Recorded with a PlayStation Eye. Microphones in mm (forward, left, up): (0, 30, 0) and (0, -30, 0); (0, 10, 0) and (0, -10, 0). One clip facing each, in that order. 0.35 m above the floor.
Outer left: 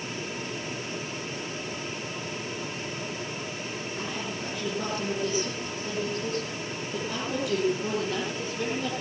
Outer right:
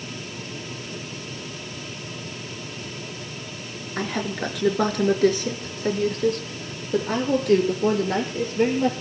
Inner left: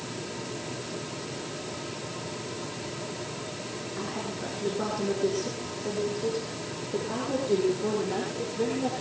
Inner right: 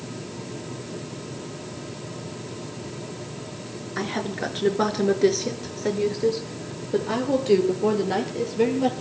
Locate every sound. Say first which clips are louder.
4.0 s a woman speaking: outer right 11 dB, inner right 9 dB; 75° right (ahead or behind), 5.5 m; by 8.9 s 50° right (ahead or behind), 8 m